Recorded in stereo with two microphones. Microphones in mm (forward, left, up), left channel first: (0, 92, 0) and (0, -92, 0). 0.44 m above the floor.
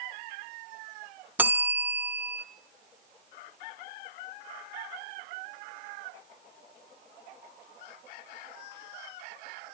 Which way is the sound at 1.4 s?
10° right (ahead or behind).